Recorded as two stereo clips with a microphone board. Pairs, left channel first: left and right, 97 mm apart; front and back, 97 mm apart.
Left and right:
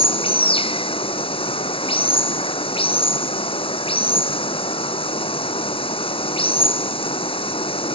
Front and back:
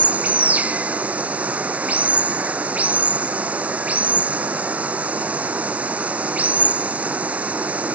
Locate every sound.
0.0 s running water: 105° left